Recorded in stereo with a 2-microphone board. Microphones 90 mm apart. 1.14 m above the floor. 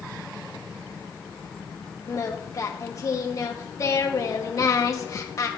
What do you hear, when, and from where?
2.1 s singing: 40° left (ahead or behind), 1.0 m